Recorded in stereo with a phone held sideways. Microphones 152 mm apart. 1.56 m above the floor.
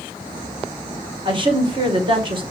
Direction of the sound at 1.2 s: 35° right (ahead or behind).